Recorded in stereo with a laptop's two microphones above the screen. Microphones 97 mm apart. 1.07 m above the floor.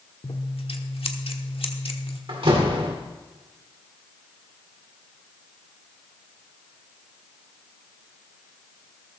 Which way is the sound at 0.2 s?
70° left (ahead or behind).